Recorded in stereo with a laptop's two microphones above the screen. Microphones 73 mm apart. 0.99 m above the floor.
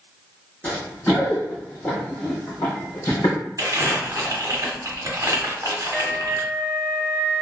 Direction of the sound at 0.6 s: 20° left (ahead or behind).